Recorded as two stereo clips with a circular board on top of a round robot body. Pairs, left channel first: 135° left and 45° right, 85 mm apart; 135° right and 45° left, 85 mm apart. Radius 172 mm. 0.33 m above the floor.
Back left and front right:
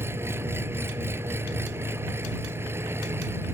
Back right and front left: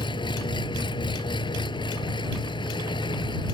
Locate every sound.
0.0 s an engine running: 110° right